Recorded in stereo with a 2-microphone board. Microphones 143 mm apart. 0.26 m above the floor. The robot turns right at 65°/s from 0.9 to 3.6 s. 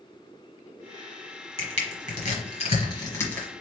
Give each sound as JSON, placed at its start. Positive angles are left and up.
{"t": 1.6, "sound": "crushing", "side_deg": 40, "distance_m": 1.3}